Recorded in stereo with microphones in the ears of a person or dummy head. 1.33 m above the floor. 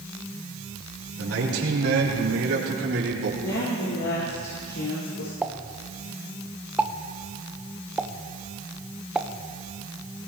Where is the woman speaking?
80° left, 3.5 m.